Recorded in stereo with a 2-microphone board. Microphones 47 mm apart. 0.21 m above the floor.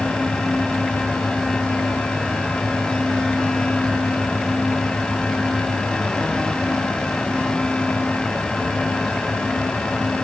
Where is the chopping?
No chopping in this recording.